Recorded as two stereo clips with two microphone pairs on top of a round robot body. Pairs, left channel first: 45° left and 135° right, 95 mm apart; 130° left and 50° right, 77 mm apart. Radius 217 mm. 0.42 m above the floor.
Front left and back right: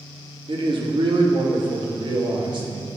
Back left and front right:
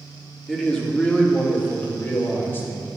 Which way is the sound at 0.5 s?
140° right.